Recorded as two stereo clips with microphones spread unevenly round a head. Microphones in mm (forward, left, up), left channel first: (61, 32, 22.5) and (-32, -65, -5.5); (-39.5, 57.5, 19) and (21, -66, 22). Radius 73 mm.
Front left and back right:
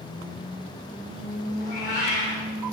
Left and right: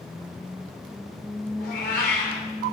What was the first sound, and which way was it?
A cat meowing, 85° left.